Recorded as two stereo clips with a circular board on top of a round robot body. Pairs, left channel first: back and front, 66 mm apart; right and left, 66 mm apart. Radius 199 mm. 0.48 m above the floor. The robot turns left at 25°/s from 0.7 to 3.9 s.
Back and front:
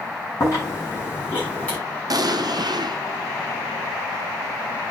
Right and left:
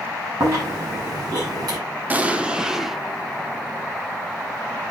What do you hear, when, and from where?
0.4 s chewing: 130° left, 8 m; by 1.8 s 105° left, 8 m
2.1 s an explosion: 25° left, 1.1 m; by 3.0 s straight ahead, 1.1 m